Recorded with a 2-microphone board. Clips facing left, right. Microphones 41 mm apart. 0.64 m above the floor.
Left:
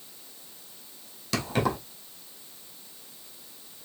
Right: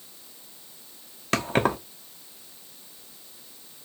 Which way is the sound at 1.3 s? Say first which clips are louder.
Right 4 dB; 45° right (ahead or behind).